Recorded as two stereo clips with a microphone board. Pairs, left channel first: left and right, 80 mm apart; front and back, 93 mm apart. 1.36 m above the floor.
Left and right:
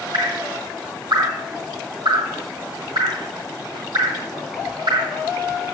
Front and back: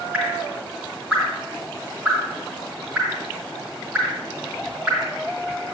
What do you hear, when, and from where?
0.1 s dripping: 105° right, 4.5 m